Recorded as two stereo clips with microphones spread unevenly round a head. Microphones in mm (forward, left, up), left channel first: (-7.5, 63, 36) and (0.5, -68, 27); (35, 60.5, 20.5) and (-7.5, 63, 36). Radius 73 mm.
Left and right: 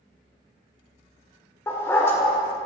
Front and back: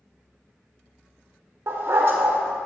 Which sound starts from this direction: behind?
A dog barking, at 1.7 s.